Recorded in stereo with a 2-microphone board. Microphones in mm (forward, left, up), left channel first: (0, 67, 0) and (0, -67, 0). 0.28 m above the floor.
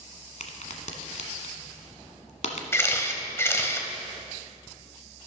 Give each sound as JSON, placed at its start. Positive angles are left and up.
{"t": 0.4, "sound": "a crack", "side_deg": 65, "distance_m": 1.3}
{"t": 2.7, "sound": "a camera shutter", "side_deg": 20, "distance_m": 1.0}